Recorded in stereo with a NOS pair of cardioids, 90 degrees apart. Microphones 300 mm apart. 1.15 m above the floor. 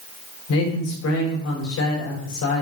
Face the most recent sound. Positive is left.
turn(degrees=65)